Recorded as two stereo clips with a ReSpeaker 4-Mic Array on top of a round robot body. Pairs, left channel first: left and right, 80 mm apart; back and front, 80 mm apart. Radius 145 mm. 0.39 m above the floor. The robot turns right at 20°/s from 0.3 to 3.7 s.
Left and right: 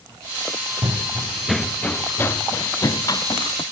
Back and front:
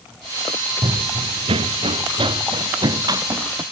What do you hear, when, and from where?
0.8 s running footsteps: 35° right; by 3.6 s 55° left